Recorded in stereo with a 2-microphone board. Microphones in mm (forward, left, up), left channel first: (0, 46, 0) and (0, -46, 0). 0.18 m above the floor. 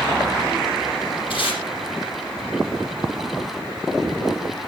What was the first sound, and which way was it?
Tape being pulled, 70° left (ahead or behind).